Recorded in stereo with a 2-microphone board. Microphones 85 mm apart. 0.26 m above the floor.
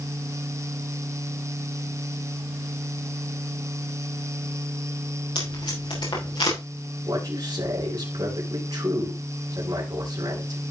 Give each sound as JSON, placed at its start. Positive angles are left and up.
{"t": 5.3, "sound": "tape being pulled", "side_deg": 75, "distance_m": 5.5}
{"t": 7.1, "sound": "a man speaking", "side_deg": -50, "distance_m": 4.0}